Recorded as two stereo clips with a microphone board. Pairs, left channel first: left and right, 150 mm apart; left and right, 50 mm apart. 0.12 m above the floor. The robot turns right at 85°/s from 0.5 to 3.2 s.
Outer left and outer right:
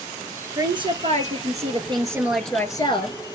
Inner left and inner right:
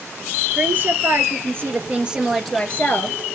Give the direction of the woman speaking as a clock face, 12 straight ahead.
5 o'clock.